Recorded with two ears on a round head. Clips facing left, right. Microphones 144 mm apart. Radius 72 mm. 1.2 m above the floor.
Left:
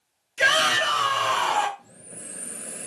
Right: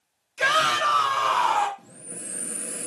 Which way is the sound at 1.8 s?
75° right (ahead or behind).